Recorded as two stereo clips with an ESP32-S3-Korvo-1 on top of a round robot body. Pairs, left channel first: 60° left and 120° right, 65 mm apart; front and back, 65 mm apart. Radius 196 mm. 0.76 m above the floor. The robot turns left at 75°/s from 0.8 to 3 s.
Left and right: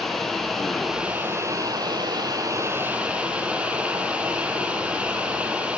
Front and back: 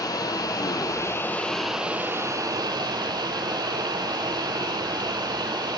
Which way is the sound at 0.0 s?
25° right.